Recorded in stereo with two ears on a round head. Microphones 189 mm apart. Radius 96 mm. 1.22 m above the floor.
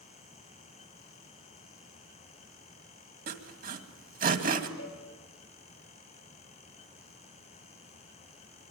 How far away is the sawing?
About 2 m.